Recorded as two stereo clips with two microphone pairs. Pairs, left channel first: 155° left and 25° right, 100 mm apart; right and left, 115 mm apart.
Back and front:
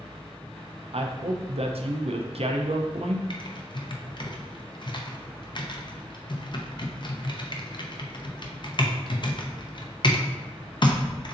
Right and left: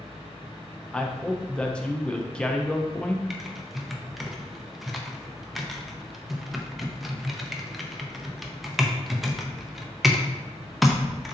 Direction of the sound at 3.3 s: Straight behind.